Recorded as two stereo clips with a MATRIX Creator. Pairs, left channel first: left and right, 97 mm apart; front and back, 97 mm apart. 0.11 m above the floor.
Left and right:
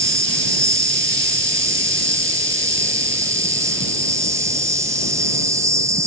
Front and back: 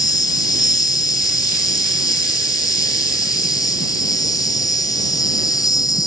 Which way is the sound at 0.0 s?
40° right.